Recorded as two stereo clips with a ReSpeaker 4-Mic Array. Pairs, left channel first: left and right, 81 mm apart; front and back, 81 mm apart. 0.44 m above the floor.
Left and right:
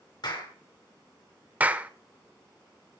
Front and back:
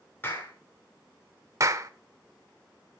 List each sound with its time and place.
0.2 s a clap: 60° left, 5.5 m
1.6 s a clap: 150° right, 1.0 m